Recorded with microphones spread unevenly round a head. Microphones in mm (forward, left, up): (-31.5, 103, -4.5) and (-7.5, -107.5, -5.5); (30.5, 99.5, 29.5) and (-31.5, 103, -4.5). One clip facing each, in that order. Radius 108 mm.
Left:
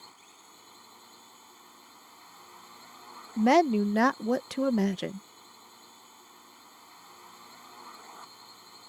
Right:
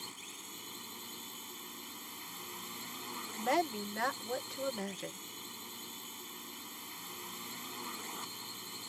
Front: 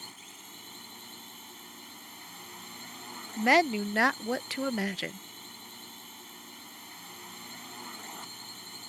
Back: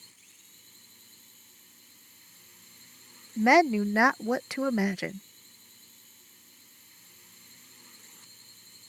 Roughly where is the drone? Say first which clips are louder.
Right 6 dB, front 13 dB; ahead right.